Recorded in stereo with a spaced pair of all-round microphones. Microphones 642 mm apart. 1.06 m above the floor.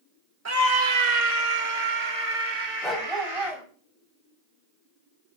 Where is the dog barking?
Centre (ahead or behind), 2.5 m.